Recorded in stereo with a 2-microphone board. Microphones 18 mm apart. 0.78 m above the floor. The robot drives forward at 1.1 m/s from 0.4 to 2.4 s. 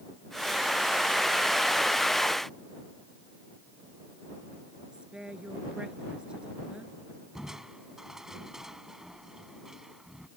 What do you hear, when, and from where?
4.9 s a woman speaking: 65° right (ahead or behind)
7.3 s crushing: 25° right (ahead or behind)